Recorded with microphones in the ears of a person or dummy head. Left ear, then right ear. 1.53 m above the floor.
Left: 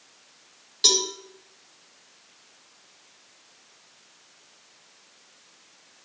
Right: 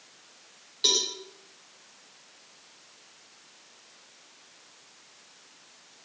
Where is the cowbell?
30° left (ahead or behind), 5 m.